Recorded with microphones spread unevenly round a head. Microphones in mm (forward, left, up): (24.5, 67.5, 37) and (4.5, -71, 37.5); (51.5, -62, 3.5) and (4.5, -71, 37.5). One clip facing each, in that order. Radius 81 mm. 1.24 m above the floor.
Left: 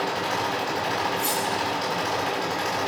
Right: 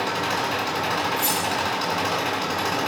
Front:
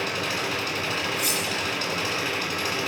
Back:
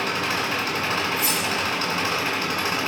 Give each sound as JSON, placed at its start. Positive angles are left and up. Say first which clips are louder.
{"t": 0.0, "sound": "an engine running", "louder": "right 1 dB, back 3 dB", "azimuth_deg": -135, "distance_m": 8.0}
{"t": 1.2, "sound": "cutlery clinking", "louder": "right 1 dB, back 3 dB", "azimuth_deg": -125, "distance_m": 9.0}